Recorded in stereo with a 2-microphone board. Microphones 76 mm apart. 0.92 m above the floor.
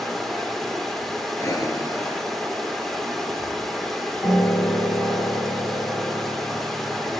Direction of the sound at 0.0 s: 5° left (ahead or behind).